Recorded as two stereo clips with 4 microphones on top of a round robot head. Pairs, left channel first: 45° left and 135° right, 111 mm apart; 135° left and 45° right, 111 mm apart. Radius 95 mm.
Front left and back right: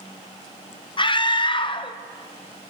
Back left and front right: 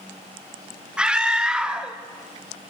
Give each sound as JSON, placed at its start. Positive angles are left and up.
{"t": 1.0, "sound": "a scream", "azimuth_deg": 35, "distance_m": 1.7}